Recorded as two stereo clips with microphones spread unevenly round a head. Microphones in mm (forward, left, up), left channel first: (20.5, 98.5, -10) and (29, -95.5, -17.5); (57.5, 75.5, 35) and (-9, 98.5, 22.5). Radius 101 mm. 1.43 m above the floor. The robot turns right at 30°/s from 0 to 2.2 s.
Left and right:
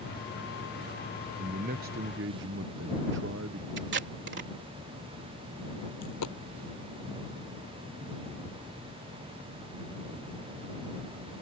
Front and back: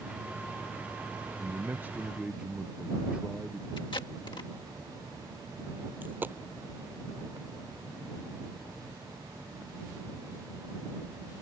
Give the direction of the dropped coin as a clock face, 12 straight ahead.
9 o'clock.